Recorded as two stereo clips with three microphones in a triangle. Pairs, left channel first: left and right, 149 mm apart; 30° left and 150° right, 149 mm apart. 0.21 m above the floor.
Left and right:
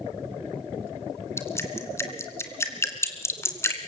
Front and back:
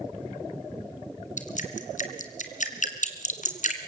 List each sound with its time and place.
1.4 s dripping: 20° left, 2 m